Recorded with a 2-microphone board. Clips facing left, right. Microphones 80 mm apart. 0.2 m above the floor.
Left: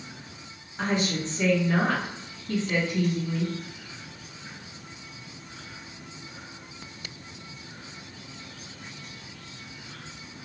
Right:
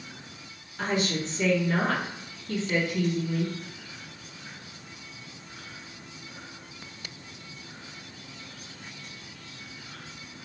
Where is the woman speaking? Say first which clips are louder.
Left 1 dB; 35° left (ahead or behind), 1.9 m.